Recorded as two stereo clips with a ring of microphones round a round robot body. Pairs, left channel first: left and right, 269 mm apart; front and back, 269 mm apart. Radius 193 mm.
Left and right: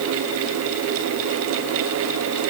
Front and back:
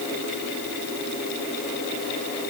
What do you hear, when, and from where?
Only background noise.